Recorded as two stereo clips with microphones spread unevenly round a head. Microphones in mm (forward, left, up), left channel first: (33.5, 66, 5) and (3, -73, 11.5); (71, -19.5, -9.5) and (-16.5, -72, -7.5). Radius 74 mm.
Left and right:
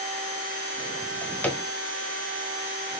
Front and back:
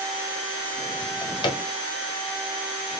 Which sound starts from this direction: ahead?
A drawer, at 1.0 s.